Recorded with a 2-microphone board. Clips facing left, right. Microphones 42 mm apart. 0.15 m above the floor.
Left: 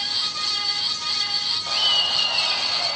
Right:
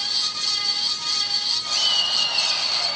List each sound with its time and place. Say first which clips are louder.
1.7 s laughter: left 2 dB; 10° left (ahead or behind), 6 m; by 3.0 s 5° left (ahead or behind), 5.5 m